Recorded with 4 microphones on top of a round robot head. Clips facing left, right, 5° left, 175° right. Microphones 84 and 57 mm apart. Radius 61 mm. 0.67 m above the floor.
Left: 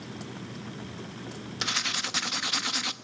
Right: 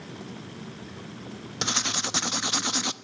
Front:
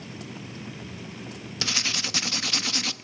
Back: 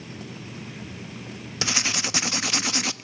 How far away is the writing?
About 0.9 m.